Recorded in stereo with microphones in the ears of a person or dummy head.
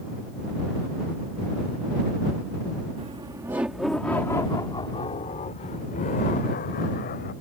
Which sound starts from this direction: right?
Laughter, at 3.0 s.